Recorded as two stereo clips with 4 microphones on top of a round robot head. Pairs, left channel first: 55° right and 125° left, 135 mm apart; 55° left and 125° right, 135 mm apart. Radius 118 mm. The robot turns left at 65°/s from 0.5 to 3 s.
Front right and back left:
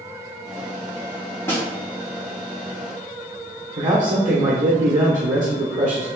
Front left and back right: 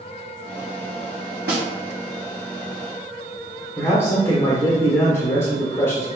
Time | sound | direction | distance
1.5 | a snare drum | 130° right | 0.7 m
3.8 | a man speaking | 125° left | 1.1 m